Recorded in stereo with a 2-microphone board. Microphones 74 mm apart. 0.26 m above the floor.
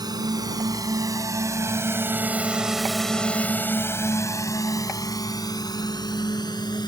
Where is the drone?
60° right (ahead or behind); by 6.9 s 65° left (ahead or behind).